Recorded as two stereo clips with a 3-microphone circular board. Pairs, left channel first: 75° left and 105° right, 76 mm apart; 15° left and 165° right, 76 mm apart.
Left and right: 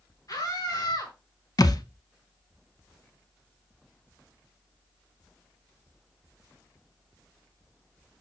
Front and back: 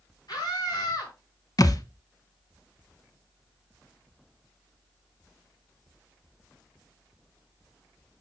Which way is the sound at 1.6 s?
45° left.